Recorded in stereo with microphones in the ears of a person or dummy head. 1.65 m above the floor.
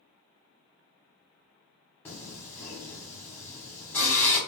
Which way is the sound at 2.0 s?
15° left (ahead or behind).